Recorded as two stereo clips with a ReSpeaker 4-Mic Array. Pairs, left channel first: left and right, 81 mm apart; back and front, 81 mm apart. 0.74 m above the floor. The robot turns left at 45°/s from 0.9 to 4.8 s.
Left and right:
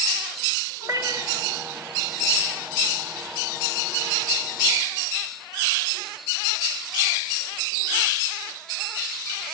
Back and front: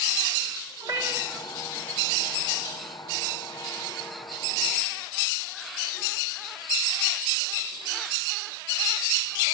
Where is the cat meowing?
35° right, 4 m; by 1.5 s 65° right, 4 m.